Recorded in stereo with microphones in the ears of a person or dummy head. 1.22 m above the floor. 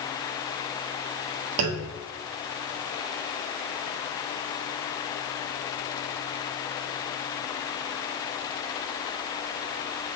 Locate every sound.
1.6 s a clunk: 55° right (ahead or behind), 0.6 m